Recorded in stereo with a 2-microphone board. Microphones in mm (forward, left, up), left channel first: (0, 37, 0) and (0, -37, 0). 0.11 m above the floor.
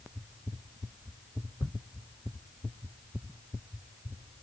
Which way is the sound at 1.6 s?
55° left (ahead or behind).